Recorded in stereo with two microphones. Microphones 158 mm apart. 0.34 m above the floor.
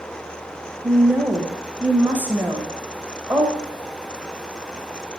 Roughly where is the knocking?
No knocking in this recording.